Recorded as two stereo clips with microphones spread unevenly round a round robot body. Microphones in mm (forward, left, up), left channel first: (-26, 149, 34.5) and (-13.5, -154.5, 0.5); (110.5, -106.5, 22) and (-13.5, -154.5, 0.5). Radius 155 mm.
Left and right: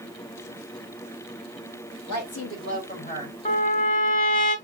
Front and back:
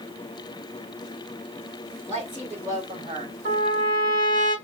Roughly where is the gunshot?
No gunshot in this recording.